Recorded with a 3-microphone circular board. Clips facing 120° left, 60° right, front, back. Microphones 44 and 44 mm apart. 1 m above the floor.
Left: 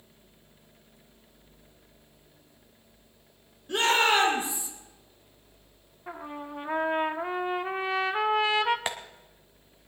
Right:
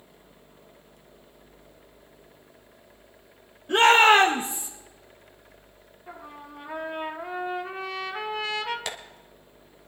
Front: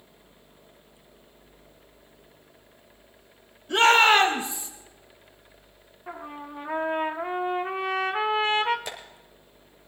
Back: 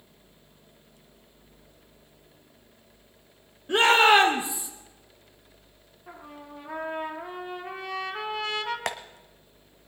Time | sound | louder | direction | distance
3.7 | a shout | right 7 dB, even | 120° right | 3 m
6.1 | a trumpet | left 4 dB, front 6 dB | 60° left | 1.2 m
8.9 | tapping | left 2 dB, back 6 dB | 175° right | 1.6 m